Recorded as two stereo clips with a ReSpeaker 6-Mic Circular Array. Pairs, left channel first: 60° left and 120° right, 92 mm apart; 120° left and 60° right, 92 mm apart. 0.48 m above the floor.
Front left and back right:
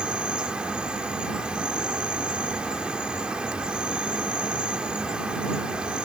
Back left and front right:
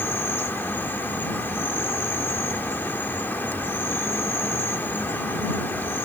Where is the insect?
170° left.